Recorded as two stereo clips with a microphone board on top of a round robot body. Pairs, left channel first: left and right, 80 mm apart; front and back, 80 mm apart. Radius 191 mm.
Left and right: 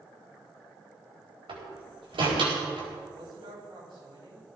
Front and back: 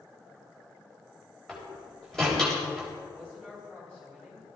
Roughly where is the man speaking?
Right.